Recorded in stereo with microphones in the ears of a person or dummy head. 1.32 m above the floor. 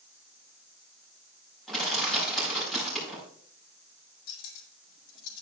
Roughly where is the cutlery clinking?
Left.